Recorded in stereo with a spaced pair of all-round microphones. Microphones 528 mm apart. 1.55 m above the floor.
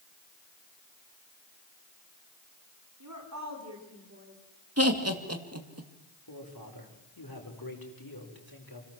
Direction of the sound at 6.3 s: 40° left (ahead or behind).